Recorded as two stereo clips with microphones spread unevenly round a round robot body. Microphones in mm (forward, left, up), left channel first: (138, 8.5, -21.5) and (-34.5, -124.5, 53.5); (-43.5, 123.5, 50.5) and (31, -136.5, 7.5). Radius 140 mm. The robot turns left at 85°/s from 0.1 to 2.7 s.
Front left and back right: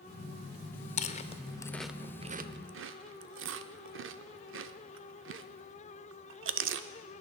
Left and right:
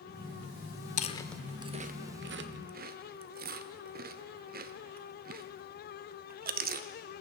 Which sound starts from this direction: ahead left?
Chewing, at 1.0 s.